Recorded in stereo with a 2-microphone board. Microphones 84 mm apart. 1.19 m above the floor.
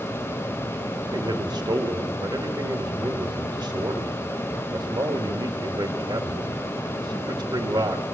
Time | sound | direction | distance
1.0 | a man speaking | 60° right (ahead or behind) | 2 m